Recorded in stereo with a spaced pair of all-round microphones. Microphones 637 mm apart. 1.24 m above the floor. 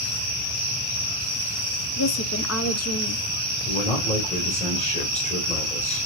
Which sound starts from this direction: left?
A woman speaking, at 2.0 s.